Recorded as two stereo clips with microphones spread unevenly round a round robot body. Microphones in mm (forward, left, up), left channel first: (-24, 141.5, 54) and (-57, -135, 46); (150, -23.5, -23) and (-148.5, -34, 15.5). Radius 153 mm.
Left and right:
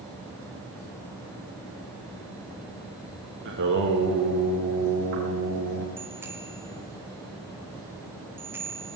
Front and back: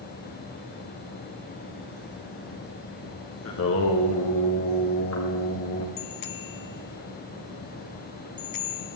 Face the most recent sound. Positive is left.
turn(degrees=-15)